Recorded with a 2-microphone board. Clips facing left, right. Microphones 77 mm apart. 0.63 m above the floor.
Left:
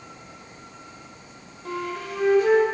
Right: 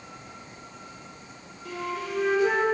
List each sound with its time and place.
1.6 s a flute: 45° left (ahead or behind), 0.5 m